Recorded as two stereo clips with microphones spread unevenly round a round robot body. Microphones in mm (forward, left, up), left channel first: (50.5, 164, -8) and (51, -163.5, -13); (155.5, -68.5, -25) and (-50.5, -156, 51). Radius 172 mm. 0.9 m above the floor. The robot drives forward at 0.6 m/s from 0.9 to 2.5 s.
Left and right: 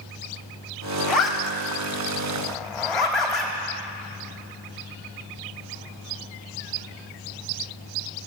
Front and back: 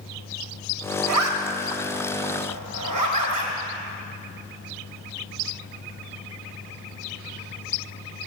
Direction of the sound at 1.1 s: Straight behind.